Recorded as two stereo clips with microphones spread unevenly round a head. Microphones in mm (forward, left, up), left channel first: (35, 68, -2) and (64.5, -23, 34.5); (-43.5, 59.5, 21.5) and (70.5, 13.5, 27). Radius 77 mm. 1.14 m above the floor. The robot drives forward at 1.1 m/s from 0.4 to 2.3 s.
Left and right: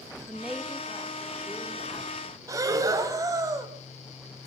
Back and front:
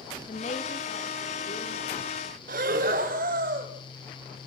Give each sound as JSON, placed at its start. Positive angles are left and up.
{"t": 0.3, "sound": "a woman speaking", "azimuth_deg": -165, "distance_m": 2.5}
{"t": 2.5, "sound": "breathing", "azimuth_deg": -35, "distance_m": 1.8}